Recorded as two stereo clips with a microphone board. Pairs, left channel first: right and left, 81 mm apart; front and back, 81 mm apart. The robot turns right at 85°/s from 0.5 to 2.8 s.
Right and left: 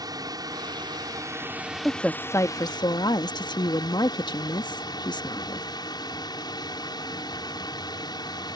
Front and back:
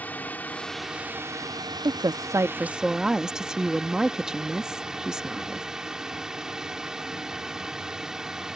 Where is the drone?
65° left; by 8.6 s 100° right.